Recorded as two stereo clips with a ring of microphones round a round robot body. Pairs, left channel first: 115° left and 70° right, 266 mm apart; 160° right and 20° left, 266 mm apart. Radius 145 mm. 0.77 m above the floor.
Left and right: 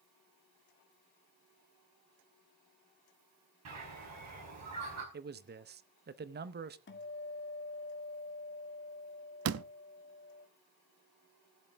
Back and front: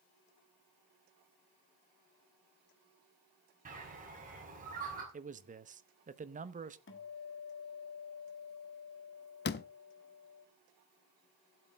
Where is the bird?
40° right, 4.5 m.